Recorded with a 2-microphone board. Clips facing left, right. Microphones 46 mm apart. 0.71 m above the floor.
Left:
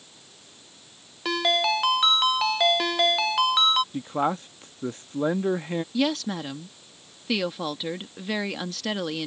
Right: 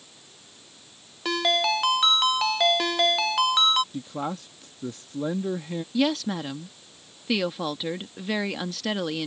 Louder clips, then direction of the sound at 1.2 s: Even; 5° left (ahead or behind).